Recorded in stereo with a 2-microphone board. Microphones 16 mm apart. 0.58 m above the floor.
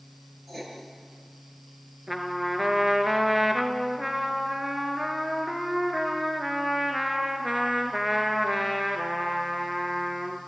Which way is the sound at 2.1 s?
15° right (ahead or behind).